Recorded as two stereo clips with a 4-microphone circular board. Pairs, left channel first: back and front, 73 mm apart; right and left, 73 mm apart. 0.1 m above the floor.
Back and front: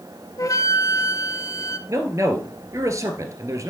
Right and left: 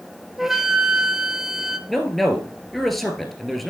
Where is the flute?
175° left, 0.6 m.